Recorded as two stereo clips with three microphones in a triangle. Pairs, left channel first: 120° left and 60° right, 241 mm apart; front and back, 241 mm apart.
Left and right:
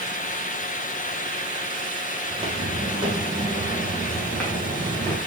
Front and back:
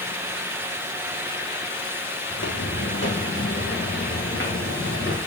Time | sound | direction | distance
2.3 | footsteps | straight ahead | 3 m